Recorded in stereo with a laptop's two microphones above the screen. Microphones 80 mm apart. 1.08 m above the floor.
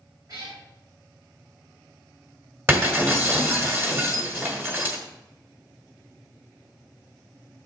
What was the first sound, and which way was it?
A cat meowing, 45° right (ahead or behind).